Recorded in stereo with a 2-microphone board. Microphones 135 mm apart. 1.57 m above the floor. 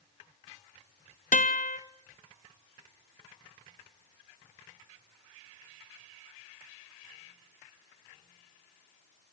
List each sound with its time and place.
1.3 s a guitar: 70° left (ahead or behind), 1.3 m